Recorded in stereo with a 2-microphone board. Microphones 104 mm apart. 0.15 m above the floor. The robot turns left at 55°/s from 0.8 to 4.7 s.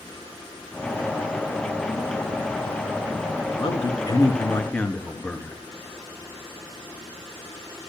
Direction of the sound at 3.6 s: 80° left.